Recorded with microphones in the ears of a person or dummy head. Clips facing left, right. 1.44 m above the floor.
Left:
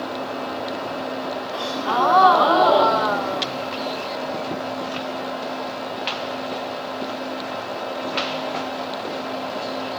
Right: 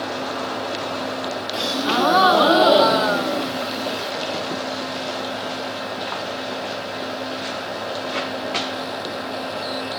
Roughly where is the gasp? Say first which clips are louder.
Right 2 dB; right.